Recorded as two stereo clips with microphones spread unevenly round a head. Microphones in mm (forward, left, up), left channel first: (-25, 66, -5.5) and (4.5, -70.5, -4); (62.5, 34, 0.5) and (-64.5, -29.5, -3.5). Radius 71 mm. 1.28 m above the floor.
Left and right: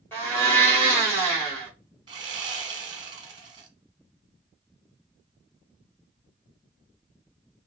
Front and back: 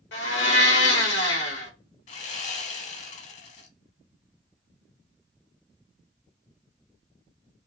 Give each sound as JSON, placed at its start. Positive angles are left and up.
{"t": 0.1, "sound": "a blender", "azimuth_deg": 25, "distance_m": 2.0}
{"t": 2.1, "sound": "sawing", "azimuth_deg": -15, "distance_m": 1.0}